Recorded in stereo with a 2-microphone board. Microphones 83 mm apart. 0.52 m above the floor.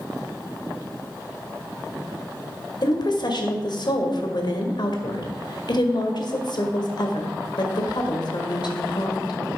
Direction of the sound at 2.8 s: 60° left (ahead or behind).